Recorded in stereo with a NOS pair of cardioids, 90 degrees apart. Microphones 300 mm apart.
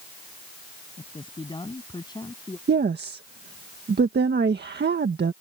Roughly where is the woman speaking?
Ahead right.